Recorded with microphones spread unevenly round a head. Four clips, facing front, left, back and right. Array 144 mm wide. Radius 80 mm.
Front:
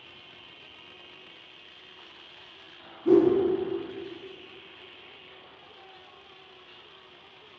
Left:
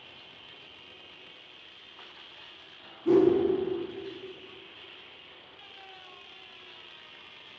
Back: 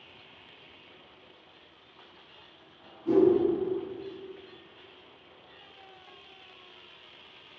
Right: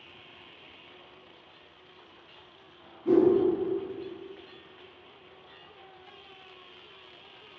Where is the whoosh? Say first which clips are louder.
Even, front 2 dB; 5° right, 0.8 m.